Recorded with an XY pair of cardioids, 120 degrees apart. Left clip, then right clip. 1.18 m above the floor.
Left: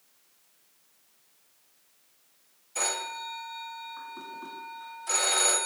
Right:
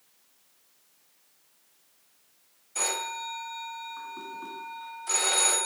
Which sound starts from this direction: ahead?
A phone ringing, at 2.8 s.